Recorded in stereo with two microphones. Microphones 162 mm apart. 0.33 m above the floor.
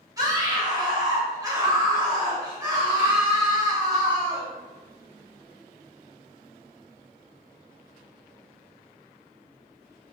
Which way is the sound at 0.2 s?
20° right (ahead or behind).